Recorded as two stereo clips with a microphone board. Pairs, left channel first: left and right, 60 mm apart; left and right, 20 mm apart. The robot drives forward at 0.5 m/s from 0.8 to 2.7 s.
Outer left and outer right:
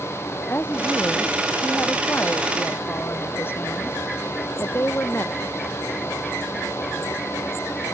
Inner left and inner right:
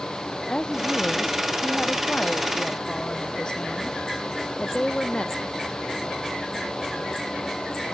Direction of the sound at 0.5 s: 35° left (ahead or behind).